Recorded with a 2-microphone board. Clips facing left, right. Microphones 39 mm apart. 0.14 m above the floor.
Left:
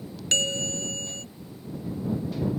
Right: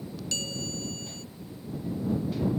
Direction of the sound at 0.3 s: 60° left (ahead or behind).